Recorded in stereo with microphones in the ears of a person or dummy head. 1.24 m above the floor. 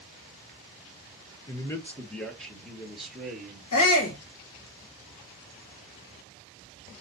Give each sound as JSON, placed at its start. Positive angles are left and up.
{"t": 1.5, "sound": "a man speaking", "side_deg": 10, "distance_m": 0.9}
{"t": 3.7, "sound": "a shout", "side_deg": 75, "distance_m": 1.2}